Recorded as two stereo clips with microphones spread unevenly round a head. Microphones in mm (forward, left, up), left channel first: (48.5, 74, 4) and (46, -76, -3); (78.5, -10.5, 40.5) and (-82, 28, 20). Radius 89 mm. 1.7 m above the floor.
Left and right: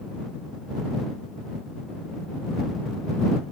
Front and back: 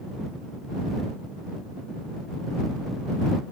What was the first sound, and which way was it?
Only background noise.